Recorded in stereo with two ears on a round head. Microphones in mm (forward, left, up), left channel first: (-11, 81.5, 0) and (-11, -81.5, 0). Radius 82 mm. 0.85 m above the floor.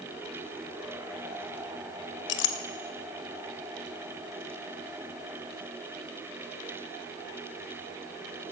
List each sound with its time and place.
2.3 s a clink: 65° left (ahead or behind), 0.7 m